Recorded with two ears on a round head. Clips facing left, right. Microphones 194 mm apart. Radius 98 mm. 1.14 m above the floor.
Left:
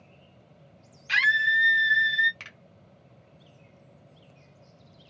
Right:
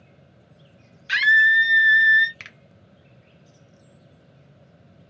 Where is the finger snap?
25° right (ahead or behind), 0.9 m.